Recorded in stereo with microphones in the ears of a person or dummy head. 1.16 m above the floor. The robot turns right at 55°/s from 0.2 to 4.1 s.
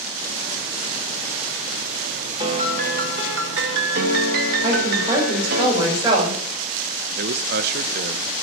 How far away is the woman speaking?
About 4.5 m.